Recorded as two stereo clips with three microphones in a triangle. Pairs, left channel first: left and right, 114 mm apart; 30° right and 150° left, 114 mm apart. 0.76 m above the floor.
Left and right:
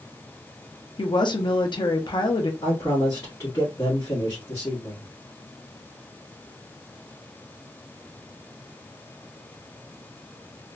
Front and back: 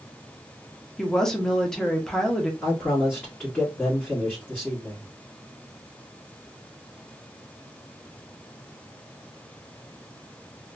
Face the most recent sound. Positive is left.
turn(degrees=40)